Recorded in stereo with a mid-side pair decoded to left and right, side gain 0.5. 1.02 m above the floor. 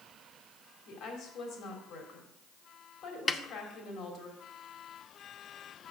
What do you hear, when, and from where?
0.9 s a woman speaking: 65° left, 3 m
3.3 s a snare drum: 30° left, 0.8 m